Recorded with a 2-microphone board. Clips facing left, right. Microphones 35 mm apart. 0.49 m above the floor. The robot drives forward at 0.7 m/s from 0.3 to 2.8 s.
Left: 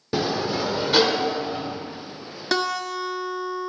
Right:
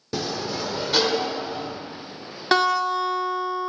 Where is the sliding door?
20° left (ahead or behind), 0.6 m; by 1.8 s 10° left (ahead or behind), 1.5 m.